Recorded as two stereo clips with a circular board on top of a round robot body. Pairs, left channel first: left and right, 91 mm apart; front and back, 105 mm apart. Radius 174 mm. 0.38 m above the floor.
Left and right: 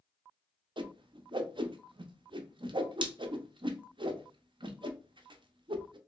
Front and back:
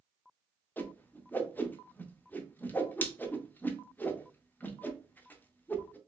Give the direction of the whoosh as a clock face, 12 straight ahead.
2 o'clock.